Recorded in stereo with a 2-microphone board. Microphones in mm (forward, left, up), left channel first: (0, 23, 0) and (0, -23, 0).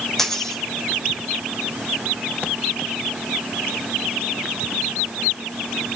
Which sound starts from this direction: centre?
A dropped coin, at 0.2 s.